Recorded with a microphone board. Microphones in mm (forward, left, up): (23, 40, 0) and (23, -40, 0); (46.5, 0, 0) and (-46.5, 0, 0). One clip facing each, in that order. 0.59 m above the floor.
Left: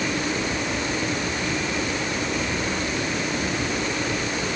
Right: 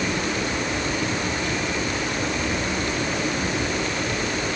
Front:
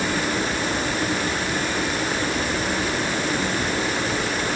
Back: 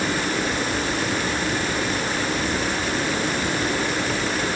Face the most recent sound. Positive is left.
No sound to turn to.